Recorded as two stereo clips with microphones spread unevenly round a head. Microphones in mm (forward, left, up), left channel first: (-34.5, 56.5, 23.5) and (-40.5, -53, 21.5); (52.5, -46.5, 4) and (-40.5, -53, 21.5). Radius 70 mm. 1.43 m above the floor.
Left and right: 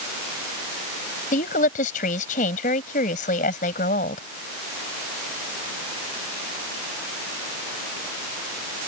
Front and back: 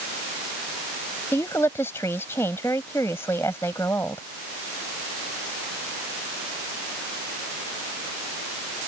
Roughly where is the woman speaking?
Left.